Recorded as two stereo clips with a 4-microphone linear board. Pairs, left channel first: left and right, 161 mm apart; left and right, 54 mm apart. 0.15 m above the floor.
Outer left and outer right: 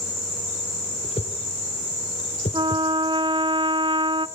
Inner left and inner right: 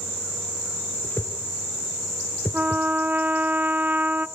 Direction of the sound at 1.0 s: 40° left (ahead or behind).